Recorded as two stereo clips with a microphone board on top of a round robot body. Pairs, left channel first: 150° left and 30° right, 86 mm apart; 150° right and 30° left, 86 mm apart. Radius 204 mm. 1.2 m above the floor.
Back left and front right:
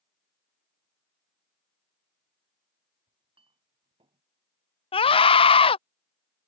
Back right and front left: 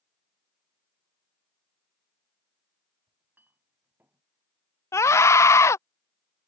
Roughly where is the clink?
Ahead right.